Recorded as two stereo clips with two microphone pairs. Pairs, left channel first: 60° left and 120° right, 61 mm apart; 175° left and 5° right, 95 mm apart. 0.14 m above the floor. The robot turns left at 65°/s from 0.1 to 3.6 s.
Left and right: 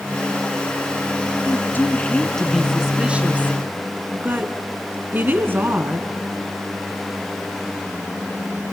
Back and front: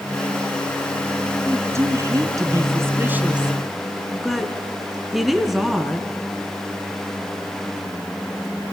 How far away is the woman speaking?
About 1.9 m.